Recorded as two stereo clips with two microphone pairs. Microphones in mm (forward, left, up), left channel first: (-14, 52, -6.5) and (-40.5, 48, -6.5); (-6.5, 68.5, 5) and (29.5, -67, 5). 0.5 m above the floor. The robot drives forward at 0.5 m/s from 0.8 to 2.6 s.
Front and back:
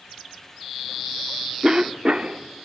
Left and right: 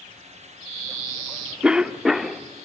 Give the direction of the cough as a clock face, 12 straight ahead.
5 o'clock.